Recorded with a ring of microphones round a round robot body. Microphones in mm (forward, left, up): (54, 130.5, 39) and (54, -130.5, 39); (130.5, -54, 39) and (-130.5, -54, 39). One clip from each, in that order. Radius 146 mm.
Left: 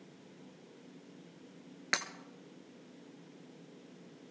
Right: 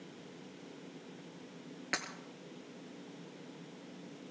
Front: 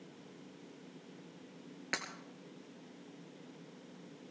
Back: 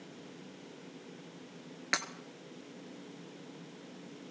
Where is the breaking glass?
130° left, 0.9 m.